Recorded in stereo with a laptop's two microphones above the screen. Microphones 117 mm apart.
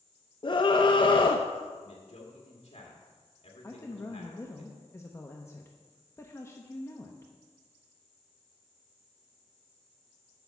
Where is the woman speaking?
25° left (ahead or behind), 0.9 m.